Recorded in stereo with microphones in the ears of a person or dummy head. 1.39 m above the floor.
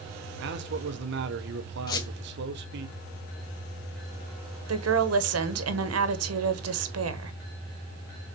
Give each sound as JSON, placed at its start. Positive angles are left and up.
{"t": 0.4, "sound": "a man speaking", "side_deg": -65, "distance_m": 1.0}
{"t": 1.9, "sound": "a squeak", "side_deg": 30, "distance_m": 0.8}
{"t": 4.7, "sound": "a woman speaking", "side_deg": -75, "distance_m": 1.3}